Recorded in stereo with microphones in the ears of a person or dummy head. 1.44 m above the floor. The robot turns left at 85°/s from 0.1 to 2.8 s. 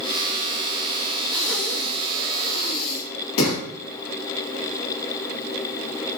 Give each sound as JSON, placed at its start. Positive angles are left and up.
{"t": 1.3, "sound": "breathing", "side_deg": -30, "distance_m": 0.8}